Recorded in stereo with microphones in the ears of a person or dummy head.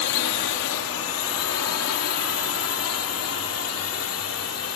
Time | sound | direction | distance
0.0 | a drone | 70° left (ahead or behind) | ?